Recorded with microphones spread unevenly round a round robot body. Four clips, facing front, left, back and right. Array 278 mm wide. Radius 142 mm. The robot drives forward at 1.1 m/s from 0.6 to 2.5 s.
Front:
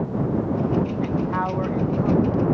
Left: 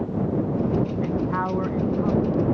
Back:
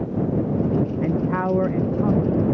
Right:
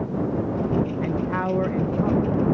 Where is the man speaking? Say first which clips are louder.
Even, back 2 dB; 170° right; by 2.5 s 175° right.